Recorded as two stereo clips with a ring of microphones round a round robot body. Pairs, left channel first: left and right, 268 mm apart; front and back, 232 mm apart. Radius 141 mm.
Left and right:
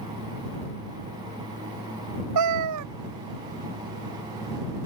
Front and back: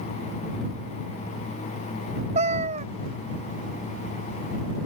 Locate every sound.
2.4 s a cat meowing: 110° right